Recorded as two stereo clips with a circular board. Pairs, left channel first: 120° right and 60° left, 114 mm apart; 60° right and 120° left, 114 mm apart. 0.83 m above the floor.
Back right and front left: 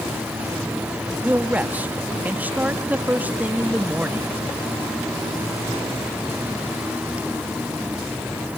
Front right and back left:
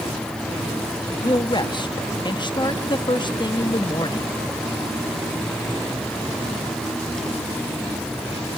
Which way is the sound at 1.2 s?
15° right.